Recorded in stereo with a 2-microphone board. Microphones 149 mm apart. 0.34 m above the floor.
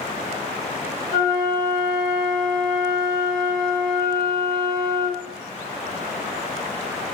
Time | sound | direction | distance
1.1 | a flute | 30° left (ahead or behind) | 1.5 m